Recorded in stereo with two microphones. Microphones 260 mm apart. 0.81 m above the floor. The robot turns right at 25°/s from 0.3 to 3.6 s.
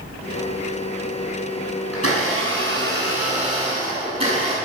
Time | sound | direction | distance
1.9 | a blender | 60° right | 7 m